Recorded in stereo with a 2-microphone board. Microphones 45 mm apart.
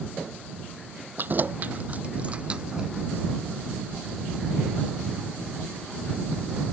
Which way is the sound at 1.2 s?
45° right (ahead or behind).